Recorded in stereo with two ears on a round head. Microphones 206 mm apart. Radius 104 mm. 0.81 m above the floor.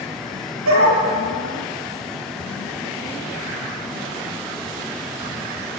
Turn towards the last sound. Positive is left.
turn(degrees=-60)  # may be behind; listen again after turning